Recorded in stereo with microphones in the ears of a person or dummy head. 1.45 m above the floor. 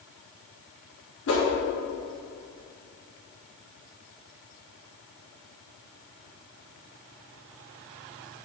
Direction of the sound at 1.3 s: 60° left (ahead or behind).